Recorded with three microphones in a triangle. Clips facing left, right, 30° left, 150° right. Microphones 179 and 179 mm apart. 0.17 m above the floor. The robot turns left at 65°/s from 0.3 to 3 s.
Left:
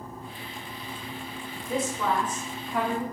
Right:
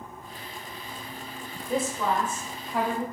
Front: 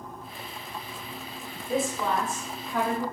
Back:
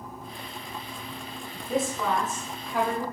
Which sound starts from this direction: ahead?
A woman speaking, at 1.7 s.